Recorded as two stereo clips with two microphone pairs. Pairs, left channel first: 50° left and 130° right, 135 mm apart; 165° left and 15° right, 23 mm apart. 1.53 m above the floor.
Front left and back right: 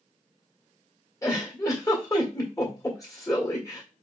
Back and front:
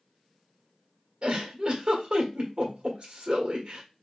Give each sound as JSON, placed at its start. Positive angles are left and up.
{"t": 1.2, "sound": "a giggle", "azimuth_deg": -10, "distance_m": 1.6}